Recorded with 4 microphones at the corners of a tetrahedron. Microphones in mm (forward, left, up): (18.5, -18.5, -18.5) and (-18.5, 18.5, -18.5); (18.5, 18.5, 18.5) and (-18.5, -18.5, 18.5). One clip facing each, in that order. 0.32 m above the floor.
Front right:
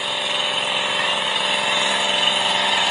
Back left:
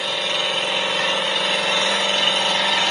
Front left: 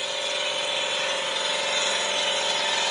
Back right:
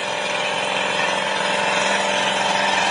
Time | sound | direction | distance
0.0 | an engine running | 125° right | 1.4 m